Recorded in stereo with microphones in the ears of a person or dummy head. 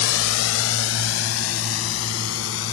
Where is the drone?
85° left; by 2.7 s 75° left (ahead or behind).